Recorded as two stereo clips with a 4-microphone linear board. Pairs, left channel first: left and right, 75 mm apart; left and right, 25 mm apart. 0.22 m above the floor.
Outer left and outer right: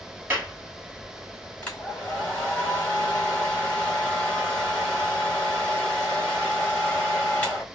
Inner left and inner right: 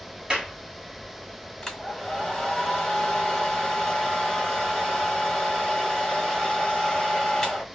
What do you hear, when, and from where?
0.3 s a clap: 25° right (ahead or behind), 1.7 m
1.6 s a hair dryer: 20° left (ahead or behind), 1.9 m